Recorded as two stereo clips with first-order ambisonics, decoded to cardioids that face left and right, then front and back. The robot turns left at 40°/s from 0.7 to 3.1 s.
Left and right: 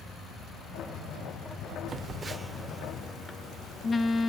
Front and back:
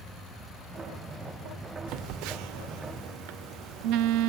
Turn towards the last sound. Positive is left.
turn(degrees=160)